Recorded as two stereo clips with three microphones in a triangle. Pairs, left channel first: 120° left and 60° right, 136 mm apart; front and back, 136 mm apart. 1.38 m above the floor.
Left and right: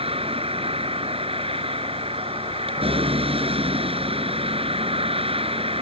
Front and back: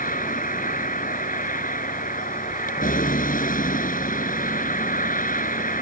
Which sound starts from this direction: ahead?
A vehicle, at 0.0 s.